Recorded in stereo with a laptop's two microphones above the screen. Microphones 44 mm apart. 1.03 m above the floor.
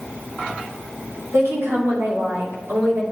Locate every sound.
1.3 s a woman speaking: 80° right, 2.5 m; by 3.0 s 65° right (ahead or behind), 4 m